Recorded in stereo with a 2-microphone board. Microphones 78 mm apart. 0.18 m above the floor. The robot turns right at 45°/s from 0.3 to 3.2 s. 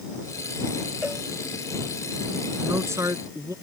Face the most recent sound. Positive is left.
turn(degrees=-45)  # may be behind; listen again after turning